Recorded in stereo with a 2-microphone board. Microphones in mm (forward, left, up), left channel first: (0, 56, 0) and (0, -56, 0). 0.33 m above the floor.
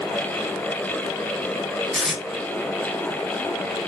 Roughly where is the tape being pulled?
Centre.